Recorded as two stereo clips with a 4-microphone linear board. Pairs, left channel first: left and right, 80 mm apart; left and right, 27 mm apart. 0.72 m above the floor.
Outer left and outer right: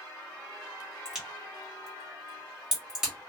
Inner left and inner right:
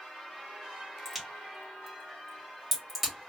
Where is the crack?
5° right (ahead or behind), 1.5 m.